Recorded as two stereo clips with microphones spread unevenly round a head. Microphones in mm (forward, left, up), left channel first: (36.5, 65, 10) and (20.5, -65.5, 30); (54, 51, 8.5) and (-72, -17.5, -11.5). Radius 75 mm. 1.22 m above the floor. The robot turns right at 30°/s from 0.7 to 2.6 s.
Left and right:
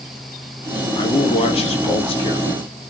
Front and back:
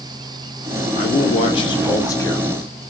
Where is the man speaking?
60° left, 0.8 m; by 2.5 s 105° left, 0.8 m.